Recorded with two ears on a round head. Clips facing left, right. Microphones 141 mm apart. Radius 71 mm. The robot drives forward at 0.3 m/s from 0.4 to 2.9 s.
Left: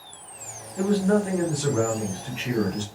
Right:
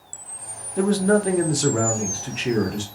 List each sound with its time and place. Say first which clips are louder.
0.8 s a man speaking: right 3 dB; 55° right (ahead or behind), 0.6 m; by 2.8 s 35° right (ahead or behind), 0.8 m